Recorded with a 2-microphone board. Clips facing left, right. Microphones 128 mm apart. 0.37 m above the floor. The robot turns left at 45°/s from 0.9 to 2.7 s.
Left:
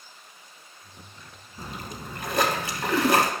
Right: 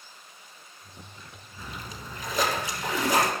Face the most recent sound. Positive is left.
turn(degrees=90)